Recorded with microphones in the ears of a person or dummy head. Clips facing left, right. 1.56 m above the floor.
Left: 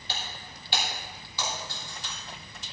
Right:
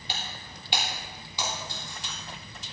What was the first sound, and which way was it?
Breaking glass, 15° right (ahead or behind).